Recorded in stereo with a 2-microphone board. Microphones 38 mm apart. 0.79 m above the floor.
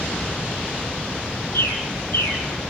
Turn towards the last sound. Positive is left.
turn(degrees=85)